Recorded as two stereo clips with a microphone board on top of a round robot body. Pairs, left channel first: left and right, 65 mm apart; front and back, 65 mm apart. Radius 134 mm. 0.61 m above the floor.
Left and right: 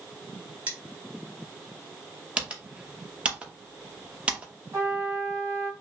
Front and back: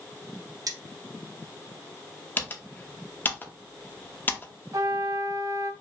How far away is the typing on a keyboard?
About 1.4 m.